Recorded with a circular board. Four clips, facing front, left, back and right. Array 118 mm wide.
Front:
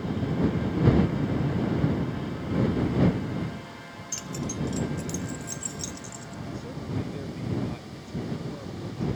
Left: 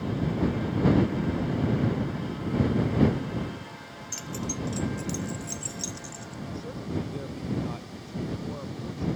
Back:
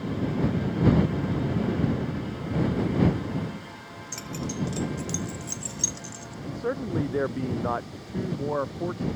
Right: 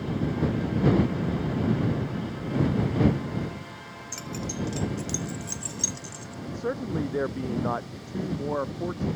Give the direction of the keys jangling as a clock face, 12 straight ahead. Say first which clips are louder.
Even, even; 5 o'clock.